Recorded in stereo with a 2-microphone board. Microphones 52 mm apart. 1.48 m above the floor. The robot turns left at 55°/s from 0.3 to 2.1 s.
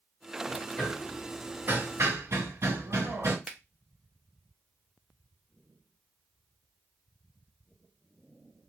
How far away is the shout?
No shout in this recording.